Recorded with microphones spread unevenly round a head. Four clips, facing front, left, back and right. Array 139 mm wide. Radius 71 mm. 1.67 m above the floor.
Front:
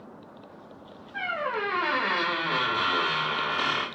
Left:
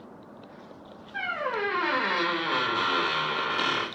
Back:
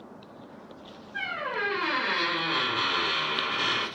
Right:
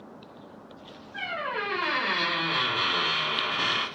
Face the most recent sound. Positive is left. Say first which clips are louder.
# left 2 dB, front 3 dB
turn(degrees=70)